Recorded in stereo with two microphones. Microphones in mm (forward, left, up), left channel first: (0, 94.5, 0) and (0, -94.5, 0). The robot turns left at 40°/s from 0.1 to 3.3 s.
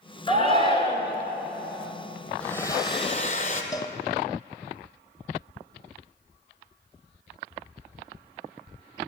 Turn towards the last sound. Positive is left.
turn(degrees=20)  # may be behind; listen again after turning